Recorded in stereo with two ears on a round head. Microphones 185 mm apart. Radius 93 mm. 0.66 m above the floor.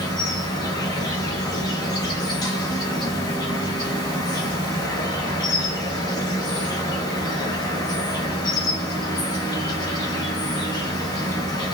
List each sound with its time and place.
0.0 s an insect: 20° left (ahead or behind), 1.0 m